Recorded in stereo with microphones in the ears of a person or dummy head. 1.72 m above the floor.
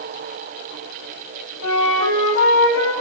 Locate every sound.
1.6 s a flute: 85° left, 8 m